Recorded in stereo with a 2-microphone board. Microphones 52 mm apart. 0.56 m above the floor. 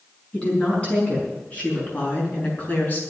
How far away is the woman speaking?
About 5.5 m.